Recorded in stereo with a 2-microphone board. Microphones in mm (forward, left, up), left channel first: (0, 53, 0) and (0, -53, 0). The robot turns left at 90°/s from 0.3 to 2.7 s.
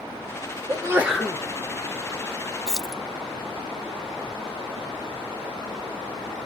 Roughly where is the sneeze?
Behind right.